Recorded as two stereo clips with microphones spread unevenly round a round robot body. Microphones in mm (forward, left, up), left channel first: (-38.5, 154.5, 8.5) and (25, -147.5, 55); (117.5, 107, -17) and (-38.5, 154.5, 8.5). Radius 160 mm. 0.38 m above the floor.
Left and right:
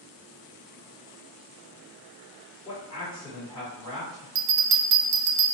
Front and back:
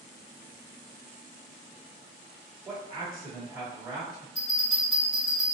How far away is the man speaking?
About 1.5 m.